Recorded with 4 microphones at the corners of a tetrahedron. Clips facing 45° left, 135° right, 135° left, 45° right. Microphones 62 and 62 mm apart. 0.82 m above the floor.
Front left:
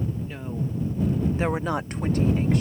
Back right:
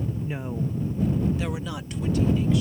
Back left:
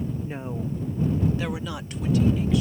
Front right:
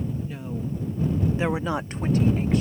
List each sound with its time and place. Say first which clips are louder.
0.2 s a woman speaking: back right 2 dB, back left 1 dB; 165° left; by 2.6 s 5° left